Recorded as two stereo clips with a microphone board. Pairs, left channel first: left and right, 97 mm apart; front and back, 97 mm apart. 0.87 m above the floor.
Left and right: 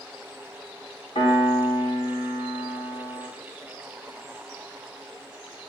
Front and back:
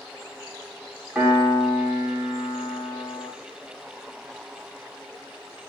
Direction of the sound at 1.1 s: 105° left.